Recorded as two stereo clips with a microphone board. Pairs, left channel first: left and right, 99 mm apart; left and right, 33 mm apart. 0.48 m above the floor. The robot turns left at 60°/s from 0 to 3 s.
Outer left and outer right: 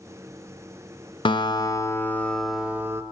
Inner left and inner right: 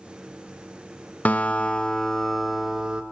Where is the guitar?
70° left, 1.0 m; by 3.0 s 35° right, 1.0 m.